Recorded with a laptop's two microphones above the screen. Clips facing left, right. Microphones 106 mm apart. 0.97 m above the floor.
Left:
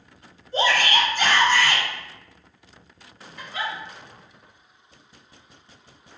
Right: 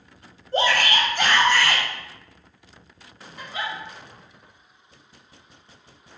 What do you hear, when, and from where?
0.5 s a shout: 45° right (ahead or behind), 0.6 m
3.4 s a giggle: 20° right (ahead or behind), 0.9 m